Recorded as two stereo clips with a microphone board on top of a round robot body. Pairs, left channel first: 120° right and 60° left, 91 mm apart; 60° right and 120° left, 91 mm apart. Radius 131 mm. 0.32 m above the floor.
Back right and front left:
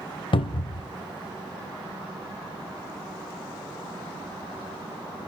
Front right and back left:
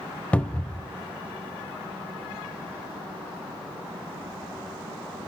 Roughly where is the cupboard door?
Behind right.